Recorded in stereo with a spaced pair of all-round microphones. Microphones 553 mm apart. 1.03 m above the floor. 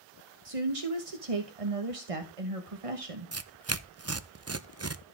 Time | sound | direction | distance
0.5 | a woman speaking | 70° right (ahead or behind) | 1.2 m
3.3 | tearing paper | 30° right (ahead or behind) | 0.5 m